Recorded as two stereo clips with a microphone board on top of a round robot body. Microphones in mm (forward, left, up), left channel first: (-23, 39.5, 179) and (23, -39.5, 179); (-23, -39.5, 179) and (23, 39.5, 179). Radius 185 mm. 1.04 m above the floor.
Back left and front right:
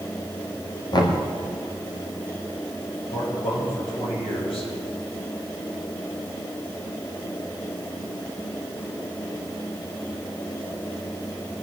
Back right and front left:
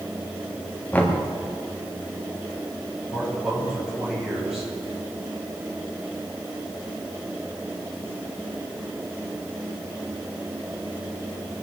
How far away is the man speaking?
About 5.5 m.